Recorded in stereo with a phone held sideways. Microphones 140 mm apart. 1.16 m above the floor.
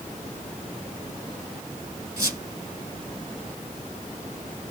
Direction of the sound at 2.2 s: 25° right (ahead or behind).